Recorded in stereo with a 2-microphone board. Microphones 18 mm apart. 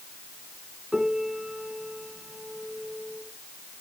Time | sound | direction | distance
0.9 | a piano | 30° right (ahead or behind) | 1.7 m